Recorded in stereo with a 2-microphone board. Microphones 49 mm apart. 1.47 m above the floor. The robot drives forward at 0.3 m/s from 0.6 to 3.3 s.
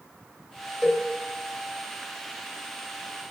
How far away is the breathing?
No breathing in this recording.